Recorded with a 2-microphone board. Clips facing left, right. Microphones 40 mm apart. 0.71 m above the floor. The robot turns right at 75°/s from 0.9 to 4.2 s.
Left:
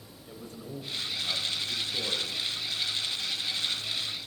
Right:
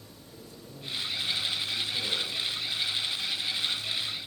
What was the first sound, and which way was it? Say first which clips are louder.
A man speaking: left 7 dB; 60° left.